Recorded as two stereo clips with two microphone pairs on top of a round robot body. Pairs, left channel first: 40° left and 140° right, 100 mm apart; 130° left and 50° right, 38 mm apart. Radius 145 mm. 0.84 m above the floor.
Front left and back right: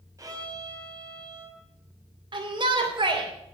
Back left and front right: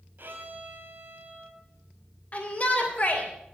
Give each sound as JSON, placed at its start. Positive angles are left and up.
{"t": 0.2, "sound": "a violin", "azimuth_deg": -80, "distance_m": 3.0}
{"t": 2.3, "sound": "a shout", "azimuth_deg": -175, "distance_m": 3.5}